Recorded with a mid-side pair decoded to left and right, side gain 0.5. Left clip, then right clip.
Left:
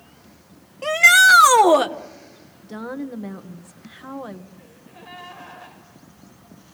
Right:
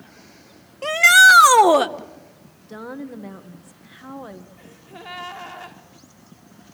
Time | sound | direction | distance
0.8 | a shout | 10° right | 1.4 m
2.6 | a woman speaking | 10° left | 1.5 m
4.6 | a gasp | 65° right | 4.5 m